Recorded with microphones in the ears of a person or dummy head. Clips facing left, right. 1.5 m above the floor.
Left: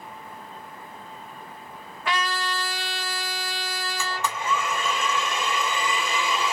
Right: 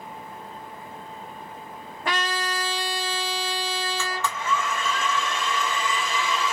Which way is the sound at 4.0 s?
10° left (ahead or behind).